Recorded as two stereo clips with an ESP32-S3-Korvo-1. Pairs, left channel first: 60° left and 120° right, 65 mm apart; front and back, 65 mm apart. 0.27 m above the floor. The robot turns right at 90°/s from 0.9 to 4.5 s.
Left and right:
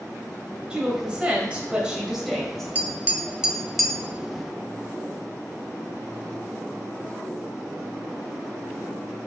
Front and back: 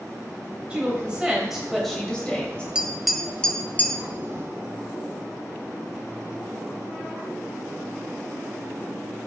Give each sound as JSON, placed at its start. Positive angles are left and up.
{"t": 0.7, "sound": "a woman speaking", "azimuth_deg": -165, "distance_m": 0.9}
{"t": 2.8, "sound": "tapping", "azimuth_deg": -120, "distance_m": 0.5}